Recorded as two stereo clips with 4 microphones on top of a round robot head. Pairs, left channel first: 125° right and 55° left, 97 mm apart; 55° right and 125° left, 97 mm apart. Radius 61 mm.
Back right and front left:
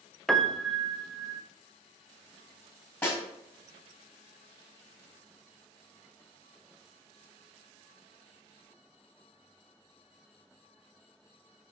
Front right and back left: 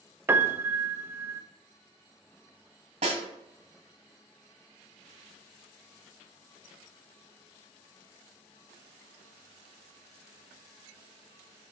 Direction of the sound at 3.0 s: 160° left.